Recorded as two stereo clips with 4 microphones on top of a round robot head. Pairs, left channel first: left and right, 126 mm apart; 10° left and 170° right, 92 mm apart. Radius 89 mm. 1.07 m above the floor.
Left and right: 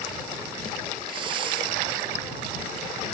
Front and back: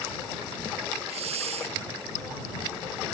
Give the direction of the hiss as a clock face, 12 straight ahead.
5 o'clock.